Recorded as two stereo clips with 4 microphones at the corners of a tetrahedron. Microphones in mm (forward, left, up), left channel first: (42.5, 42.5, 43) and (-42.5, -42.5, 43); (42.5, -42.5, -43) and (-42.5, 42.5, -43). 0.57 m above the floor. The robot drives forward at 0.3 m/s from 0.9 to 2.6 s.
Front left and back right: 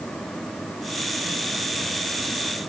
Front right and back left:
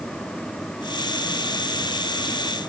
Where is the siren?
I don't hear a siren.